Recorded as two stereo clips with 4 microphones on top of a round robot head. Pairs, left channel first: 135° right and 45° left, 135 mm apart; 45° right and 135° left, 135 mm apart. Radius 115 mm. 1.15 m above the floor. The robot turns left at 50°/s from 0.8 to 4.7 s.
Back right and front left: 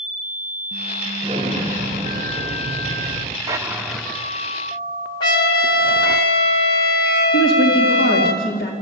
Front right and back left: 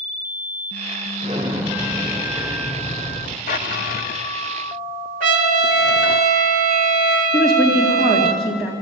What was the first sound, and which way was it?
An explosion, 90° left.